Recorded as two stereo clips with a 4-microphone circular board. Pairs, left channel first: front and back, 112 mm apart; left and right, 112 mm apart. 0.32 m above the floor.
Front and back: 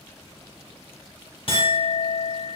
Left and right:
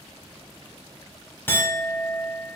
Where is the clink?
20° left, 1.1 m.